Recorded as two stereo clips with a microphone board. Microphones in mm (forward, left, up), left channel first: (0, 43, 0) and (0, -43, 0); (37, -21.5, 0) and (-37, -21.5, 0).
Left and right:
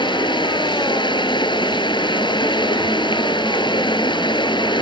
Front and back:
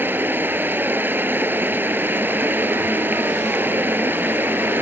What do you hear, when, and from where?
0.0 s running water: 115° left